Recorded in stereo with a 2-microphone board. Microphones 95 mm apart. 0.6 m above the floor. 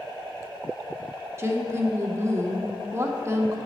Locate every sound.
1.4 s a woman speaking: 30° right (ahead or behind), 0.9 m